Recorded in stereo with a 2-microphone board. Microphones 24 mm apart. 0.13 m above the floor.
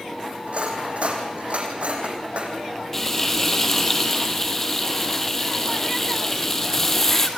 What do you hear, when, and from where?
0.5 s cutlery clinking: 65° right (ahead or behind), 4 m
2.9 s frying: 15° left (ahead or behind), 2 m